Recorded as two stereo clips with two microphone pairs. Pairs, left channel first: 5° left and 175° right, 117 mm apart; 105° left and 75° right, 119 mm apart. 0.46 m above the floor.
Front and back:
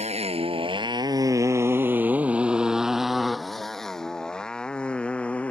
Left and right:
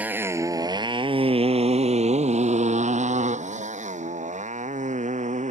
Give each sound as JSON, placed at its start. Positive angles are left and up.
{"t": 0.0, "sound": "a motorcycle", "azimuth_deg": -150}